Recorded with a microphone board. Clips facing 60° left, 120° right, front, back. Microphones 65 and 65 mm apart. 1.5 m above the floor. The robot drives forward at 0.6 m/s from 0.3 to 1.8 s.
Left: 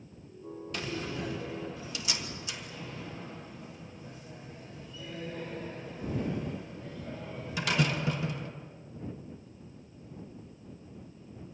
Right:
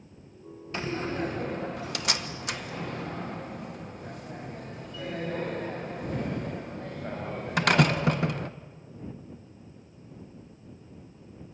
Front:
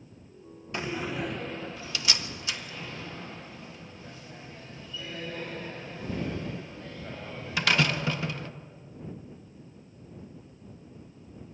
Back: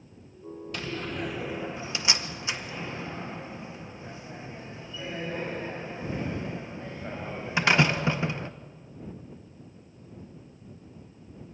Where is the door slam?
65° right, 0.8 m; by 8.5 s 115° right, 0.8 m.